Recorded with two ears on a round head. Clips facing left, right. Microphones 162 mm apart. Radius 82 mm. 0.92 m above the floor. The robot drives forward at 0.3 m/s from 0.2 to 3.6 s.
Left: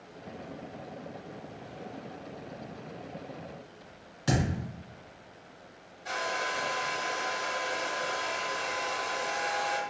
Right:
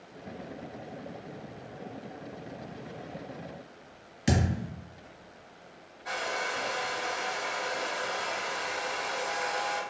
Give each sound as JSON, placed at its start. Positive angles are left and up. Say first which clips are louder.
{"t": 4.3, "sound": "a thud", "louder": "right 1 dB", "side_deg": -20, "distance_m": 1.8}
{"t": 6.0, "sound": "a hair dryer", "louder": "even", "side_deg": 35, "distance_m": 1.6}